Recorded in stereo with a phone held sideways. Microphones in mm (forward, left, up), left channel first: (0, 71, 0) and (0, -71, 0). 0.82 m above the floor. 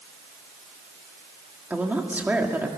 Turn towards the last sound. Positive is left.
turn(degrees=-10)  # may be behind; listen again after turning